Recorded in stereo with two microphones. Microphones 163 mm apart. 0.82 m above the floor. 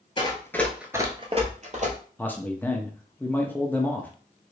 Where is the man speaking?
10° left (ahead or behind), 0.7 m.